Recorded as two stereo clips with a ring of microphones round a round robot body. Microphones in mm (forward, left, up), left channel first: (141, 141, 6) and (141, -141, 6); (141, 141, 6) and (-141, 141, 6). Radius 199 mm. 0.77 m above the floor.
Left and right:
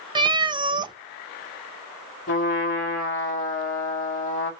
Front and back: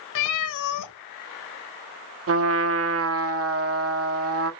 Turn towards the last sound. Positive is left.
turn(degrees=145)